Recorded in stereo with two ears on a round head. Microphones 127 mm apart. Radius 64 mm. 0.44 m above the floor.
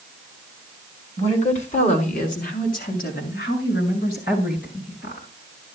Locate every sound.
1.2 s a woman speaking: 50° left (ahead or behind), 4 m; by 5.3 s 80° left, 7.5 m